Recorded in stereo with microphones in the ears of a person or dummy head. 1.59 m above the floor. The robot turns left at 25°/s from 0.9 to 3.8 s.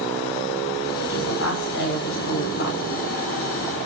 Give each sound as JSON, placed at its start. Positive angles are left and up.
{"t": 1.0, "sound": "a woman speaking", "azimuth_deg": 100, "distance_m": 5.5}